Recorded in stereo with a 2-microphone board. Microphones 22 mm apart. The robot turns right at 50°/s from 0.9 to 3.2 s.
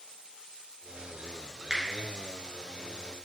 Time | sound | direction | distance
1.7 | a finger snap | 20° right (ahead or behind) | 1.2 m